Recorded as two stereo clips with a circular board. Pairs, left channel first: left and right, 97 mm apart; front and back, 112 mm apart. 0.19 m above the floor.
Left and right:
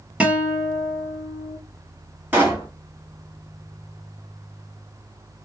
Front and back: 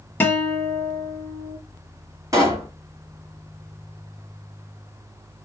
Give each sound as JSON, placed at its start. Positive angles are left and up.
{"t": 0.2, "sound": "a guitar", "azimuth_deg": -35, "distance_m": 1.0}
{"t": 2.3, "sound": "a pop", "azimuth_deg": -145, "distance_m": 1.7}